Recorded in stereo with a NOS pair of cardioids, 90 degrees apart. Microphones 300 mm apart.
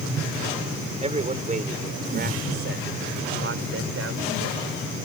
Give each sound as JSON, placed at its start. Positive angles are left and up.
{"t": 1.0, "sound": "a man speaking", "azimuth_deg": -20}